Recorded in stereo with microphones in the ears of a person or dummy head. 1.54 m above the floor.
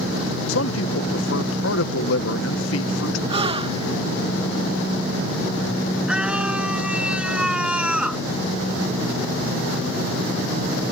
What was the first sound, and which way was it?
A man speaking, 80° left.